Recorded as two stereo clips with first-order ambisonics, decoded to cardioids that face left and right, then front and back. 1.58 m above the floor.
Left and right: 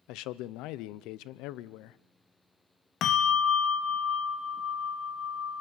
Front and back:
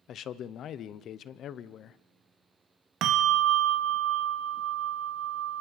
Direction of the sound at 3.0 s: 140° left.